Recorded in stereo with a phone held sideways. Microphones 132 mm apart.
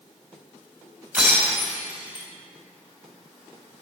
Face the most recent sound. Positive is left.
turn(degrees=-10)  # may be behind; listen again after turning